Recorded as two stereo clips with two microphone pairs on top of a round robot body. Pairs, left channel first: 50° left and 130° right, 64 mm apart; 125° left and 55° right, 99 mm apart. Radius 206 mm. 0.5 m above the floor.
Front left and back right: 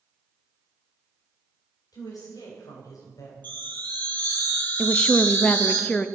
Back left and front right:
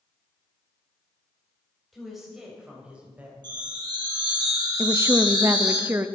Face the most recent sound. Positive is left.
turn(degrees=-25)